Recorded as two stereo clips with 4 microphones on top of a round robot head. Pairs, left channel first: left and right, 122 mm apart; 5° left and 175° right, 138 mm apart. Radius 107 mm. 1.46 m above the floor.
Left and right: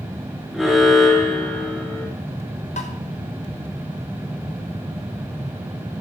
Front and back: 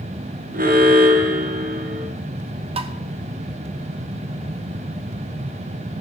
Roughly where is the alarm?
Behind.